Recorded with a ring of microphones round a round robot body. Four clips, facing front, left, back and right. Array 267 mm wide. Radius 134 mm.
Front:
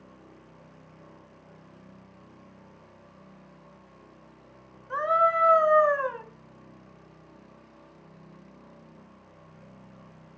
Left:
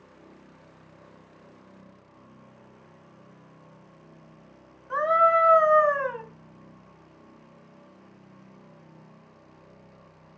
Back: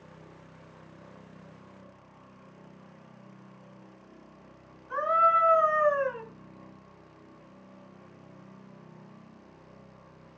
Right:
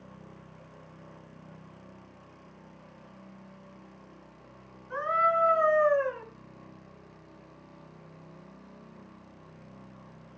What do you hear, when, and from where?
4.9 s a scream: 60° left, 3.5 m; by 6.2 s 50° left, 4 m